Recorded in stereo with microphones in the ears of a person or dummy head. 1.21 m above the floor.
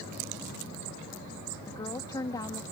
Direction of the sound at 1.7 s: 20° left (ahead or behind).